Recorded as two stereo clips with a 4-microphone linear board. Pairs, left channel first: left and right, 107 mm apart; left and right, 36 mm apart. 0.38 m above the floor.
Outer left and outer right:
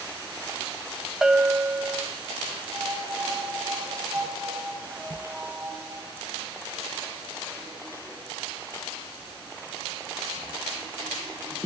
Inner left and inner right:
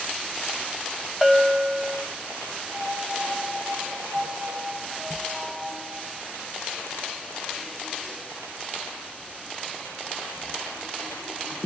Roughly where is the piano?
Centre.